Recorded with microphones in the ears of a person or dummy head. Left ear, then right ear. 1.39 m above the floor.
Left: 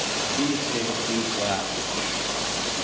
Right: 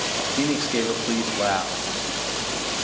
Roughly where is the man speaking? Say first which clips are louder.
Right 1 dB; right.